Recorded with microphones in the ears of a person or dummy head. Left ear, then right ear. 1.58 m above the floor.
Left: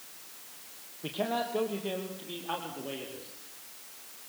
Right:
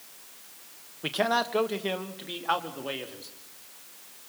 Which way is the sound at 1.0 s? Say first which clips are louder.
Right 6 dB; 60° right (ahead or behind).